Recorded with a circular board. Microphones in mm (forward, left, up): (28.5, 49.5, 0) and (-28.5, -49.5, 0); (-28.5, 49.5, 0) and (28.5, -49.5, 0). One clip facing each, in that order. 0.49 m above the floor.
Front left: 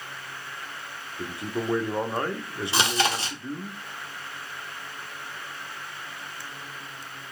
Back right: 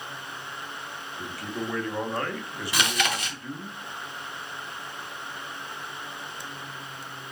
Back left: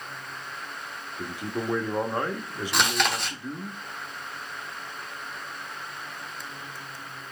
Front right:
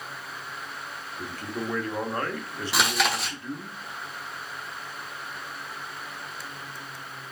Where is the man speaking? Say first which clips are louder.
Front left 3 dB, back left 2 dB; 70° left, 0.7 m.